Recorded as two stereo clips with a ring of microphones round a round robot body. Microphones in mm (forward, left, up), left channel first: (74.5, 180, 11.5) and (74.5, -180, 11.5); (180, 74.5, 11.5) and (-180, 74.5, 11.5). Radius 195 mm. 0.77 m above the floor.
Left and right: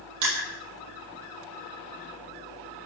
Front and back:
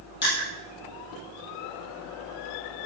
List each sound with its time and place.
0.2 s crushing: 65° right, 7.5 m